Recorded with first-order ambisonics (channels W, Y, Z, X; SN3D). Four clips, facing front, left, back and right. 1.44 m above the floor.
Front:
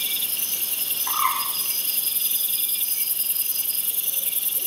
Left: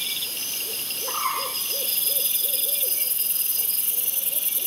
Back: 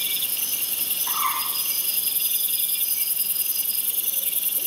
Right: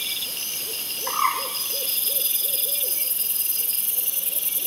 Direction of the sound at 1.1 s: 70° right.